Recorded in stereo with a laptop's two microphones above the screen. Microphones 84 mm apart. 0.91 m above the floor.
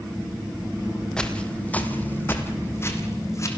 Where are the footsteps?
10° left (ahead or behind), 1.6 m; by 3.5 s 35° left (ahead or behind), 2.5 m.